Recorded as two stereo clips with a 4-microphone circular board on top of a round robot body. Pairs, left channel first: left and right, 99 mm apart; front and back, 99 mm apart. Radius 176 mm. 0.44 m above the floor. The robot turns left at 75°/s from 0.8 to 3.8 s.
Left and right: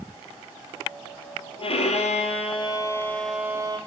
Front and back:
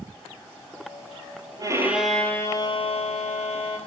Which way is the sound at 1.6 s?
125° left.